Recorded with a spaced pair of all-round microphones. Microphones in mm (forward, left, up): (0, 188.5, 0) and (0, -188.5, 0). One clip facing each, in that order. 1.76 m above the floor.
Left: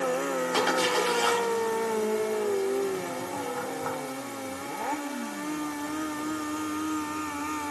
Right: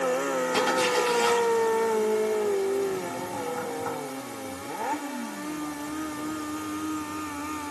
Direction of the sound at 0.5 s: 35° right (ahead or behind).